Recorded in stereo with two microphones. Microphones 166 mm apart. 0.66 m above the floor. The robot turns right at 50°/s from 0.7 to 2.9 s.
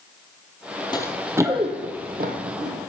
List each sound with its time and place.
0.9 s running footsteps: 25° left (ahead or behind), 1.1 m; by 2.7 s 45° right (ahead or behind), 1.8 m